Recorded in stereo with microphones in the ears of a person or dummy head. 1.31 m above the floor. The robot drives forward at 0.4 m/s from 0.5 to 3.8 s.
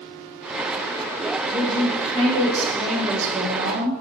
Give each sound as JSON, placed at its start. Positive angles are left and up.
{"t": 1.5, "sound": "a woman speaking", "side_deg": -25, "distance_m": 1.6}